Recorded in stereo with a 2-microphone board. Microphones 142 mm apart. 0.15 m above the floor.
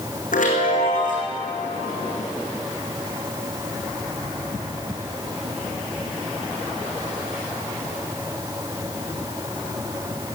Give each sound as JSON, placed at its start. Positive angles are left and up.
{"t": 0.3, "sound": "a chime", "side_deg": 80, "distance_m": 4.0}